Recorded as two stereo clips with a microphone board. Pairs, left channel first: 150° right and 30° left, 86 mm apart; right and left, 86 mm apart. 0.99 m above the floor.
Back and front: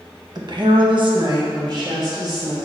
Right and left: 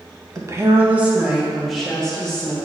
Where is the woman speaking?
50° left, 1.1 m; by 2.6 s 15° right, 2.5 m.